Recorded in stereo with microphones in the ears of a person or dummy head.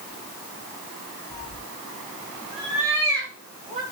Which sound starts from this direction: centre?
A cat meowing, at 1.3 s.